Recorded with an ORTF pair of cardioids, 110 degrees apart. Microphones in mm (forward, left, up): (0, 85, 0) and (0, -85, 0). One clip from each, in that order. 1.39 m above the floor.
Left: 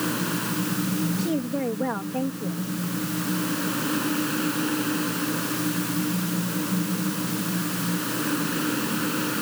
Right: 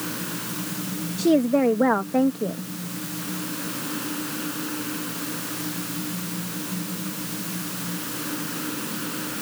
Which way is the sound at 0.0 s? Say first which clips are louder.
Left 4 dB; 30° left.